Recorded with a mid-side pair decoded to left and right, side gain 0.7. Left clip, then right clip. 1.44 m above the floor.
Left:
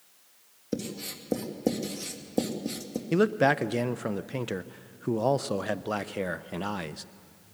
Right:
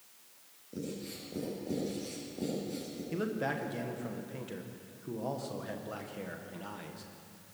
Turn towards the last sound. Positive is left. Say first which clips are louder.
# left 12 dB
turn(degrees=50)